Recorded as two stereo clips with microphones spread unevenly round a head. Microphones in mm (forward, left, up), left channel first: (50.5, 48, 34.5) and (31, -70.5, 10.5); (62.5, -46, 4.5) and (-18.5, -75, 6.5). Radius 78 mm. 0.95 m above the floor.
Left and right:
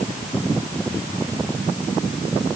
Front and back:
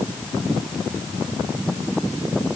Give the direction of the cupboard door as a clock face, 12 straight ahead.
I don't hear a cupboard door.